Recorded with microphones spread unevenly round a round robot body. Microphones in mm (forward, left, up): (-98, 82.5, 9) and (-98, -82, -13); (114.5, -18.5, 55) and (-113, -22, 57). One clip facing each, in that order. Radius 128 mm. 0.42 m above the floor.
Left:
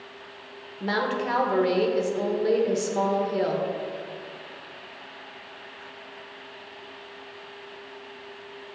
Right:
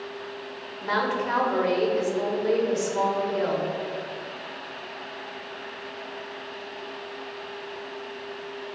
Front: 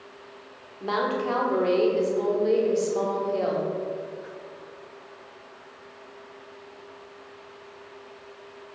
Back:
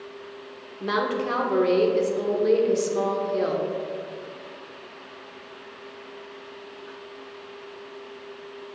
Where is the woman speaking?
125° left, 1.2 m.